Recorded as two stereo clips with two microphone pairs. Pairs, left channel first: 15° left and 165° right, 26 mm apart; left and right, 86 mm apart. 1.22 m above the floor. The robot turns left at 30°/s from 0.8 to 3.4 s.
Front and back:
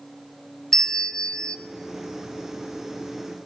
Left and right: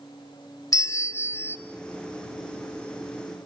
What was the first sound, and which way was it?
A bell, 60° left.